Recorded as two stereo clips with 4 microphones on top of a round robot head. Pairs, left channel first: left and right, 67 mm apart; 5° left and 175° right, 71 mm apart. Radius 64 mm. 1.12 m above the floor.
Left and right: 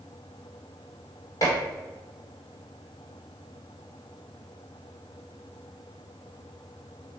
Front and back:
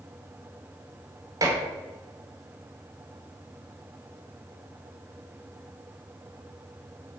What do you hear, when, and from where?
1.4 s dishes clattering: 145° left, 2.5 m